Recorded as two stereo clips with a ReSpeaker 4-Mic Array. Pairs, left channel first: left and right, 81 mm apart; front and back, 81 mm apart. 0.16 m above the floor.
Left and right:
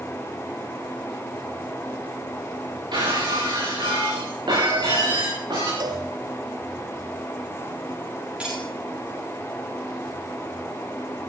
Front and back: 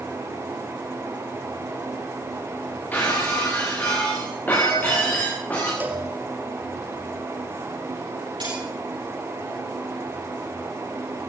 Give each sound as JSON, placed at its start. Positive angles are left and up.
{"t": 2.9, "sound": "breaking glass", "azimuth_deg": -70, "distance_m": 8.5}
{"t": 5.8, "sound": "a cowbell", "azimuth_deg": -115, "distance_m": 2.0}
{"t": 8.4, "sound": "cutlery clinking", "azimuth_deg": -165, "distance_m": 9.0}